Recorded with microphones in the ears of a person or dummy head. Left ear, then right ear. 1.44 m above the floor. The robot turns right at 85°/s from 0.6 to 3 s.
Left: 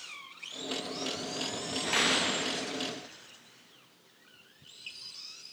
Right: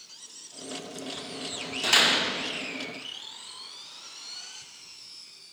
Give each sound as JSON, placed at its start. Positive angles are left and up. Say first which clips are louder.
{"t": 1.8, "sound": "a door slam", "louder": "right 6 dB", "azimuth_deg": -50, "distance_m": 1.1}